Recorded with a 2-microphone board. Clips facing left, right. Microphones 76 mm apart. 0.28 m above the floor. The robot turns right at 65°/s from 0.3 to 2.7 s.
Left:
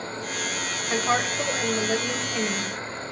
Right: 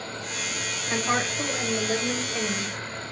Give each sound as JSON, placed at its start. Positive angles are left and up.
{"t": 0.9, "sound": "a woman speaking", "side_deg": 20, "distance_m": 1.0}